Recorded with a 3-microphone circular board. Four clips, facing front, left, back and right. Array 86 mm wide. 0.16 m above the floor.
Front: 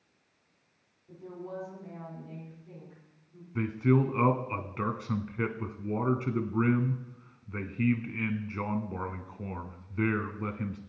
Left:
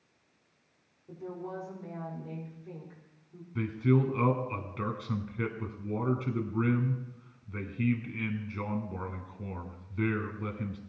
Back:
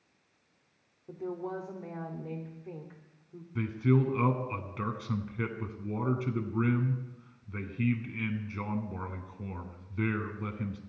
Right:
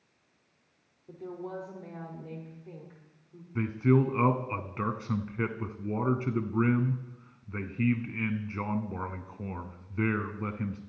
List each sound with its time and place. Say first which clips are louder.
1.1 s a woman speaking: right 1 dB, back 5 dB; 170° right, 6.5 m; by 3.5 s 175° left, 6.5 m
3.5 s a man speaking: right 2 dB, front 2 dB; 45° right, 1.2 m